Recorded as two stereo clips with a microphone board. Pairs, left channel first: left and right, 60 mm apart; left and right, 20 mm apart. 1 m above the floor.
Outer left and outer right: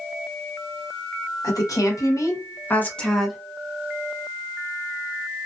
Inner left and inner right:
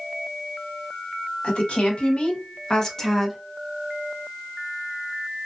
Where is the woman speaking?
80° left, 1.3 m; by 3.4 s centre (ahead or behind), 0.8 m.